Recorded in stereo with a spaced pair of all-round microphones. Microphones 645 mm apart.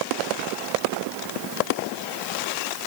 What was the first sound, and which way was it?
Only background noise.